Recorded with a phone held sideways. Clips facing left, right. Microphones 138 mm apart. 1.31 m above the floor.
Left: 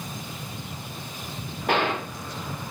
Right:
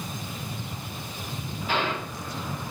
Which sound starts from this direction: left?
A gunshot, at 1.7 s.